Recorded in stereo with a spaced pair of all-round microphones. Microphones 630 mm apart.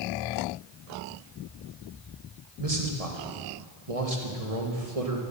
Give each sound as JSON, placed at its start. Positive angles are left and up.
{"t": 2.6, "sound": "a man speaking", "side_deg": -65, "distance_m": 1.9}